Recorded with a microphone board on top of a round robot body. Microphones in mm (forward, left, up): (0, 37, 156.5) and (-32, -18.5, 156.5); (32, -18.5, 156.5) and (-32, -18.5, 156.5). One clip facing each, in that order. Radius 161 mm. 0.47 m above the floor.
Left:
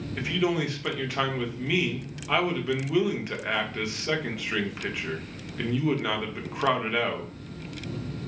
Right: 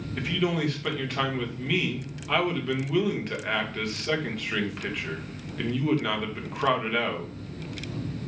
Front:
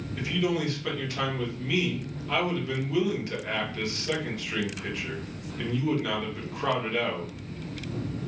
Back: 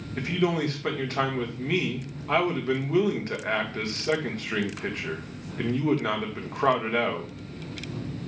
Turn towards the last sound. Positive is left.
turn(degrees=145)